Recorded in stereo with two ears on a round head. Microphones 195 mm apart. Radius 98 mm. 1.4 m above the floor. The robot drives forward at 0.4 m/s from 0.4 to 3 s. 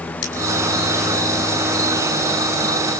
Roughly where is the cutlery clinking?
Left.